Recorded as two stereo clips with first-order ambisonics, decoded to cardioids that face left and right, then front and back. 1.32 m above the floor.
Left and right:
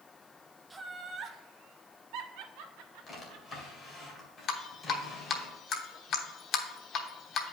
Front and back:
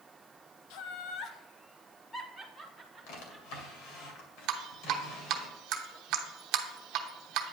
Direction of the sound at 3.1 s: 20° left.